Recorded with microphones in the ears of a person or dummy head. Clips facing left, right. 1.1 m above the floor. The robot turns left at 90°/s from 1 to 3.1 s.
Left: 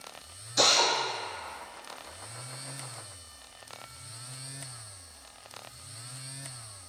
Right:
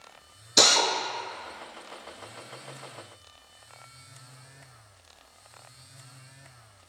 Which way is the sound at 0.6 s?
65° right (ahead or behind).